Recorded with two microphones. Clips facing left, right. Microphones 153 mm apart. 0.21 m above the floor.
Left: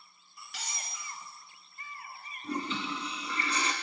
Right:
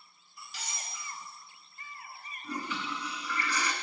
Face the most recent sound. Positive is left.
turn(degrees=25)  # may be behind; listen again after turning